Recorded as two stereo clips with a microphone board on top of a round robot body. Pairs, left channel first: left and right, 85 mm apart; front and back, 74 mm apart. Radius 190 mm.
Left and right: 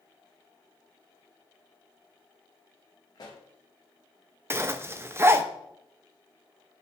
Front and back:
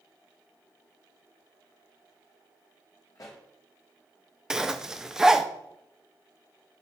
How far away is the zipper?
About 0.8 m.